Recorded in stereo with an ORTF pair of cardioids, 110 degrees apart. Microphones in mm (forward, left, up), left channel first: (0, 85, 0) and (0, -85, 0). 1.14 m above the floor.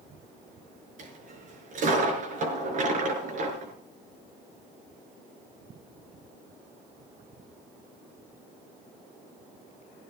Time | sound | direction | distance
1.0 | a dropped coin | 50° right | 6 m